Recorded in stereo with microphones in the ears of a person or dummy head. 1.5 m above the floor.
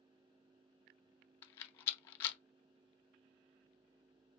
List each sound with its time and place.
1.4 s a rattle: 35° left (ahead or behind), 0.6 m